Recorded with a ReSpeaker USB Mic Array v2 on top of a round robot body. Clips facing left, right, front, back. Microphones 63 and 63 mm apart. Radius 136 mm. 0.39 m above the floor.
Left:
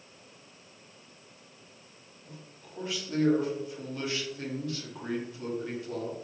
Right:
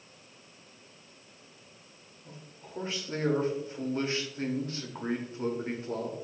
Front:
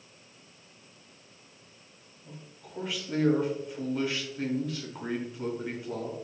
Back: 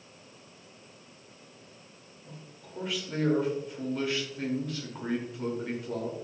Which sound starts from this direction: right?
A man speaking, at 2.2 s.